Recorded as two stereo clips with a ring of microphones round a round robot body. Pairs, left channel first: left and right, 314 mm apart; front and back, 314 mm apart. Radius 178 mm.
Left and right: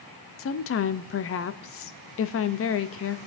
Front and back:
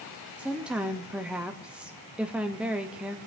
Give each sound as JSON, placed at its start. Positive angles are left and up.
{"t": 0.4, "sound": "a woman speaking", "azimuth_deg": 95, "distance_m": 0.5}